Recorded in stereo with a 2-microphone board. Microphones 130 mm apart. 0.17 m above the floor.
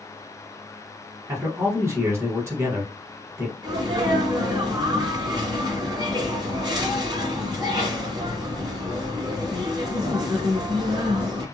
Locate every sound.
1.3 s a man speaking: 20° right (ahead or behind), 1.0 m
3.6 s a sneeze: 30° right (ahead or behind), 1.8 m